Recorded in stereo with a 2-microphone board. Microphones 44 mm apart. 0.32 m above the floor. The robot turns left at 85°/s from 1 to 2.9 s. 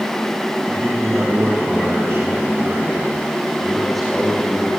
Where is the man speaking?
25° right, 6.5 m; by 4.7 s 175° left, 6.5 m.